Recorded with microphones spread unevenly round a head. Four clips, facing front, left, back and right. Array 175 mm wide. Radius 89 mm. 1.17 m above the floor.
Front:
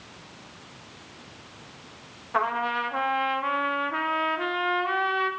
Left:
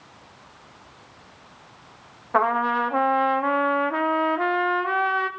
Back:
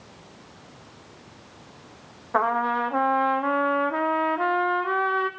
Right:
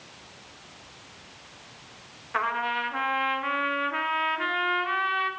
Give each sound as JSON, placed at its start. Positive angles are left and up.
{"t": 2.3, "sound": "a trumpet", "azimuth_deg": 115, "distance_m": 0.8}